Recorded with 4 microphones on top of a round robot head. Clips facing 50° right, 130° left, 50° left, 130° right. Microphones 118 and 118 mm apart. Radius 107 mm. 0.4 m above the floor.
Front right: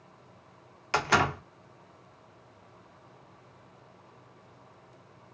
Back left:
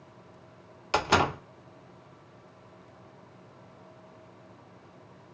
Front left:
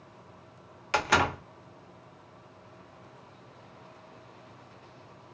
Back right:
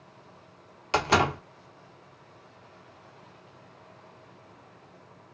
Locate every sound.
0.9 s a door slam: 175° right, 0.8 m